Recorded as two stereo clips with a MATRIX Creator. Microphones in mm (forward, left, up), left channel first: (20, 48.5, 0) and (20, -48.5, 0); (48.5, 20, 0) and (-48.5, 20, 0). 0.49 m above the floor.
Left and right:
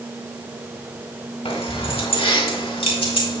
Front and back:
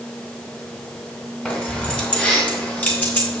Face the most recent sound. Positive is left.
turn(degrees=70)